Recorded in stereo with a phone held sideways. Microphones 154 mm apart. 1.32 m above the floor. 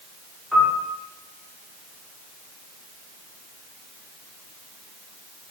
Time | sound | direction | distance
0.5 | a piano | centre (ahead or behind) | 1.0 m